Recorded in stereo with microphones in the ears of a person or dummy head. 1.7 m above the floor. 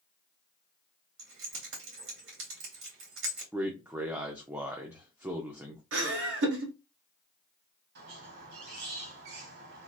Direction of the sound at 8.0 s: 55° right (ahead or behind).